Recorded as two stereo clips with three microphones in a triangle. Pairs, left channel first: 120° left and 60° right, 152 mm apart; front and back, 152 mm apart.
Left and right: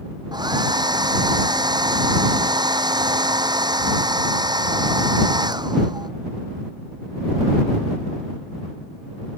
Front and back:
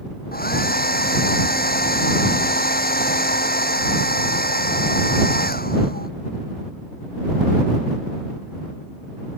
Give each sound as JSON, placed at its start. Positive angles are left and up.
{"t": 0.3, "sound": "a hair dryer", "azimuth_deg": 5}